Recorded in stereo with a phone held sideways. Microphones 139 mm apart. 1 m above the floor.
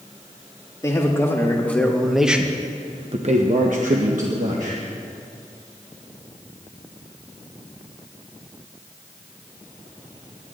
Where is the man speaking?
25° left (ahead or behind), 1.9 m; by 4.8 s 65° right (ahead or behind), 1.7 m.